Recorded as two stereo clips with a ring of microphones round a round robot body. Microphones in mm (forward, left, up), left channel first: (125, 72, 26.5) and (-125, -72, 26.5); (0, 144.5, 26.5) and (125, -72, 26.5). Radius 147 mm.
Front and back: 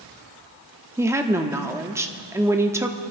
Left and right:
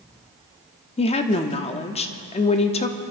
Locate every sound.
1.0 s a woman speaking: 140° left, 0.8 m